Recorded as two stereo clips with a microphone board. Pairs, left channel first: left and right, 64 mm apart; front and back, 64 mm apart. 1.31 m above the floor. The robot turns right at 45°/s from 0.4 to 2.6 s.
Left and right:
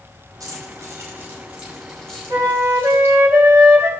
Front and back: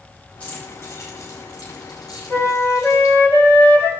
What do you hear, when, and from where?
0.4 s keys jangling: 65° right, 5.5 m; by 3.1 s 30° left, 5.5 m
2.3 s a flute: 60° right, 2 m; by 3.9 s 45° right, 2 m